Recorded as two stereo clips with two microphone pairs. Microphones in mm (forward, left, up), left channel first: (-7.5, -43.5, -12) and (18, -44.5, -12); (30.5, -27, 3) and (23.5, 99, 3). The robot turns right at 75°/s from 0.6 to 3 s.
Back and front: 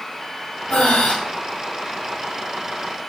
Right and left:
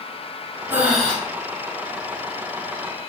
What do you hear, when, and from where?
0.7 s breathing: 160° left, 0.7 m; by 1.1 s 170° right, 0.7 m